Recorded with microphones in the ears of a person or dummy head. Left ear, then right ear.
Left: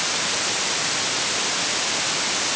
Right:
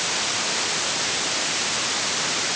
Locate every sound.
Only background noise.